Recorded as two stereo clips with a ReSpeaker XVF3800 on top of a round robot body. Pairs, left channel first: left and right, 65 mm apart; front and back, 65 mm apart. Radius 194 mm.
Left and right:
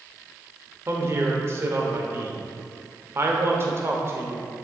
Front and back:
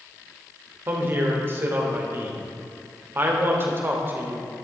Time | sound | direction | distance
0.9 | a woman speaking | 130° right | 1.1 m